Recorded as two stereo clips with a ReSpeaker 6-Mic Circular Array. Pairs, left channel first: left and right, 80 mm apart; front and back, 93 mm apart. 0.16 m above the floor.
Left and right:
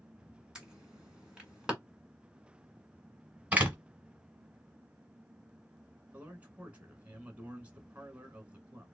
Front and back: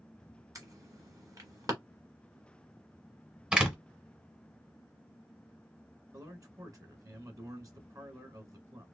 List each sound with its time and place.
0.6 s an alarm: 165° right, 1.7 m
3.5 s a door slam: 120° right, 1.2 m
6.1 s a man speaking: 155° right, 1.4 m